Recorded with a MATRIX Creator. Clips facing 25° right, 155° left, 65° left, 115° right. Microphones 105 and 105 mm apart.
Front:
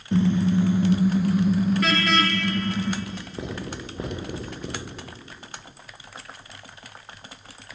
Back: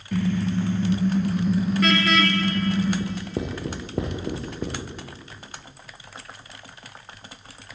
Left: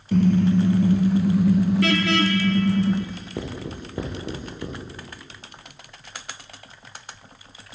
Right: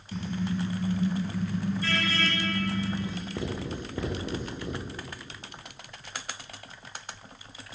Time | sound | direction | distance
0.1 | a car horn | 45° left | 2 m
3.0 | writing | 140° left | 9.5 m